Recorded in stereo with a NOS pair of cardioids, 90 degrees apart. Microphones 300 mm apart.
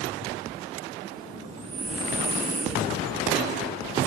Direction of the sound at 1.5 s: 25° right.